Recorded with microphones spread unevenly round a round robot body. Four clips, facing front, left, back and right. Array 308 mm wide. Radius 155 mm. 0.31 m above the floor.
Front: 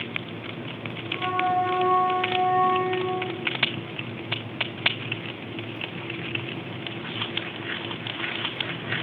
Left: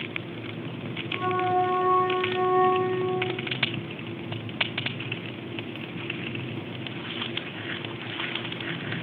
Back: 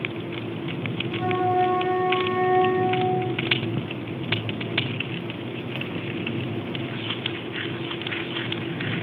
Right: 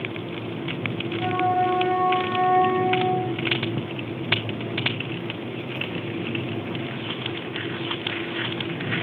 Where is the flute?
80° left, 7 m.